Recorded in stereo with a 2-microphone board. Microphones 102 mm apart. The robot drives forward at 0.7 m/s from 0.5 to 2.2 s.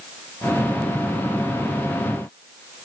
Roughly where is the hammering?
No hammering in this recording.